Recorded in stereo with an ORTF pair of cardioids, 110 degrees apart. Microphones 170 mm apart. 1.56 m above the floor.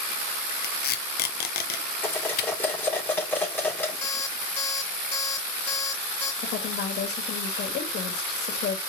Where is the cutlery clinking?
10° left, 3 m.